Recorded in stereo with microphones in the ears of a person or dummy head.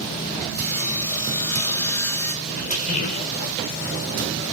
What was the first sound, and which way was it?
Sawing, 15° left (ahead or behind).